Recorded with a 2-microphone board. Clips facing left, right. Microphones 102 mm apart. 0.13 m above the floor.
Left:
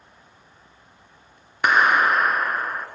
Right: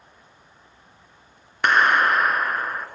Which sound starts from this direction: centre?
A clap, at 1.6 s.